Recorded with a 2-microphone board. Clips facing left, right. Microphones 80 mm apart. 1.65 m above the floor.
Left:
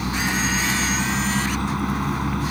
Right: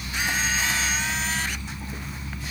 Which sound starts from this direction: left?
A vehicle, at 0.0 s.